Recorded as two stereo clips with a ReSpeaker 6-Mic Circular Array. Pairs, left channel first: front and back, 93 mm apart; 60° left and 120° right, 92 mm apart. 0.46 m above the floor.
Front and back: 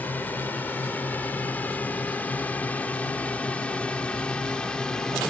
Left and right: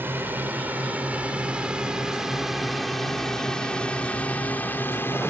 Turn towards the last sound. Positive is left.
turn(degrees=70)